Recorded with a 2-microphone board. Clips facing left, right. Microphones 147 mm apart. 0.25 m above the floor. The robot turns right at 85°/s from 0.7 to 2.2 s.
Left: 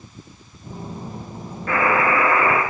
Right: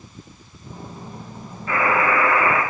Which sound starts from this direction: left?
A buzzer, at 1.7 s.